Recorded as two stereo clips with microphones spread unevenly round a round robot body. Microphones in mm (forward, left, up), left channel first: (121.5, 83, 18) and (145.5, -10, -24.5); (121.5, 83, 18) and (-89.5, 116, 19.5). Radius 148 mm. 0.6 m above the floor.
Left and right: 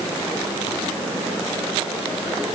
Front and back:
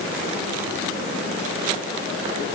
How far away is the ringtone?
I don't hear a ringtone.